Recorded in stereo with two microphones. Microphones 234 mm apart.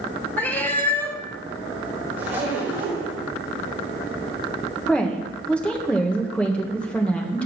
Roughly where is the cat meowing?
Centre.